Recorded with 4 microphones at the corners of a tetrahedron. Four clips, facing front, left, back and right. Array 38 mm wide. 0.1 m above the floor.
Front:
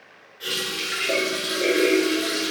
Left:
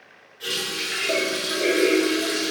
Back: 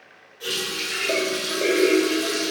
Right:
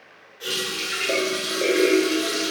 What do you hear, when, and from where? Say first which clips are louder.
0.4 s a running tap: even, even; 25° left, 0.9 m